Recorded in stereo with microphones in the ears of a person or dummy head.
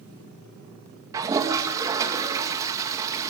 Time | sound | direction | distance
1.1 | a toilet flushing | 20° right (ahead or behind) | 1.9 m